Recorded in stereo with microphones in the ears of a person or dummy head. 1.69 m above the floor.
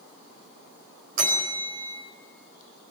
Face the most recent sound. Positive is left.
turn(degrees=-55)  # may be behind; listen again after turning